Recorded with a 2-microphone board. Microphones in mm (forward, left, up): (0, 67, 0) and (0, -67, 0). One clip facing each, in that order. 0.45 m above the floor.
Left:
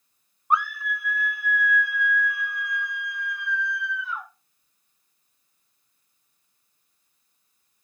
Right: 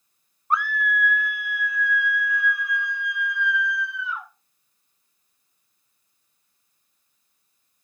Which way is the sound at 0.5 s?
15° left (ahead or behind).